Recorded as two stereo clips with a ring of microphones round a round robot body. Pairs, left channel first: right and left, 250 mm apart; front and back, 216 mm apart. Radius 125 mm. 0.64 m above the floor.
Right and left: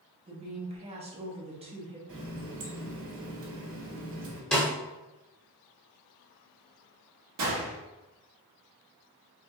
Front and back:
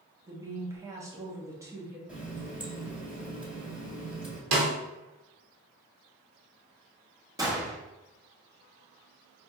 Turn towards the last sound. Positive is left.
turn(degrees=105)